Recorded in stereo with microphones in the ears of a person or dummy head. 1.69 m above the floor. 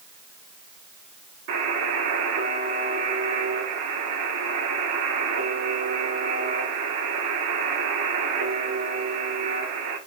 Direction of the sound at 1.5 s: 65° right (ahead or behind).